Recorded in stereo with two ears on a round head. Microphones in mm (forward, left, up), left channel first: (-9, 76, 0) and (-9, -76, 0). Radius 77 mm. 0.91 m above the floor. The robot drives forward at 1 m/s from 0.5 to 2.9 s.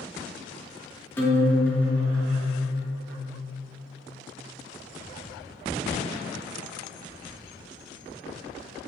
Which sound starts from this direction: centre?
A guitar, at 1.2 s.